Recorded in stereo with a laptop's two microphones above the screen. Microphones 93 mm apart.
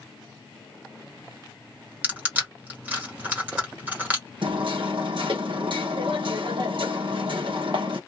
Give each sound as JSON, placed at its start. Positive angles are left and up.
{"t": 2.0, "sound": "crushing", "side_deg": -20, "distance_m": 1.2}
{"t": 4.4, "sound": "hammering", "side_deg": -60, "distance_m": 0.7}